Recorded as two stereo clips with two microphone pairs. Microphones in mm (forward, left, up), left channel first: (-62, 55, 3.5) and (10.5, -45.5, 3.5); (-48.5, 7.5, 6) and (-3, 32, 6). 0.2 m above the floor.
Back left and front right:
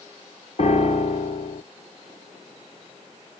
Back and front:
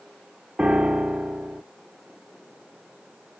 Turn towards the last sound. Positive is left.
turn(degrees=100)